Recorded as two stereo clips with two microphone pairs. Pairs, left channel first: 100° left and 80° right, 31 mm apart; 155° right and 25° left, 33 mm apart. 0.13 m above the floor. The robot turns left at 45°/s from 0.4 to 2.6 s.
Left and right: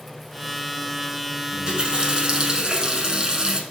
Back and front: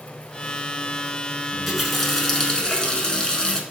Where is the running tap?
60° right, 0.8 m; by 3.6 s 110° right, 0.8 m.